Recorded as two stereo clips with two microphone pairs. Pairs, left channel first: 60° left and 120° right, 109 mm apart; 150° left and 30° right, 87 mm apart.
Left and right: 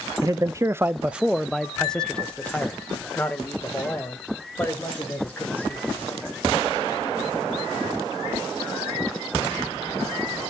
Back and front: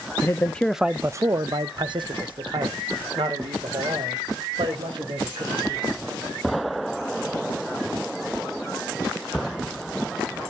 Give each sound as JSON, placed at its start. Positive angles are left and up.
{"t": 0.2, "sound": "a man speaking", "azimuth_deg": -165, "distance_m": 0.6}